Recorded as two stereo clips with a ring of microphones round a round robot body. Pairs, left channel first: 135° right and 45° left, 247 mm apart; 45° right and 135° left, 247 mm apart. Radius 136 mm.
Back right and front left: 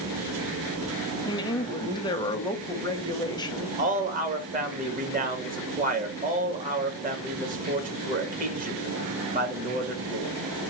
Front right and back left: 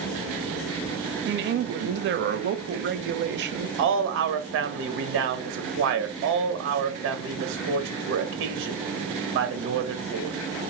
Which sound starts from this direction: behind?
A woman speaking, at 1.2 s.